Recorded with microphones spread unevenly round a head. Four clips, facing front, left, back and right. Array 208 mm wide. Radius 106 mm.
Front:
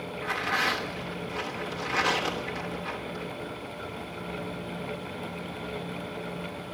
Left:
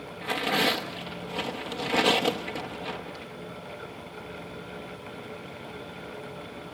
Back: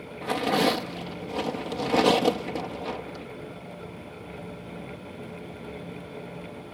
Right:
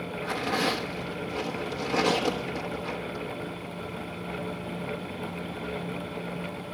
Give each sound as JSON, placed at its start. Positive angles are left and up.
{"t": 0.2, "sound": "tearing paper", "azimuth_deg": 175, "distance_m": 1.0}